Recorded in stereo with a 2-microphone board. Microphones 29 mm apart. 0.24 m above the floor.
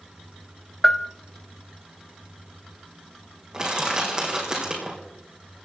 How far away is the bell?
About 0.5 m.